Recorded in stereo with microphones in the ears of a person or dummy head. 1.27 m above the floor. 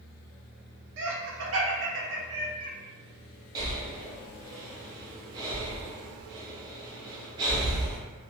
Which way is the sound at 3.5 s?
25° right (ahead or behind).